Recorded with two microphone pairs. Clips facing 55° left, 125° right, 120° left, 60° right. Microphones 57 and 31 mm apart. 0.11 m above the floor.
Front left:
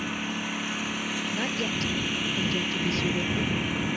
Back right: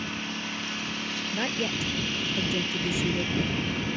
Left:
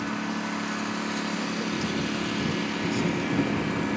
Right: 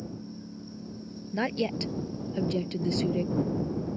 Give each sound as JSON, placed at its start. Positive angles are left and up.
{"t": 0.0, "sound": "a lawn mower", "azimuth_deg": 130}
{"t": 1.3, "sound": "a woman speaking", "azimuth_deg": -50}